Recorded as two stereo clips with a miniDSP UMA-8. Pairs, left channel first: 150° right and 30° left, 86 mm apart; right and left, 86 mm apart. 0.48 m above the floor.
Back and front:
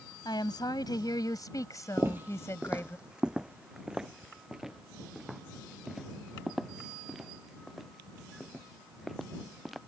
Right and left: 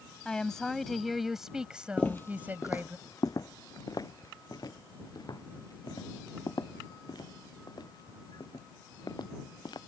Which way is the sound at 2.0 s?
20° right.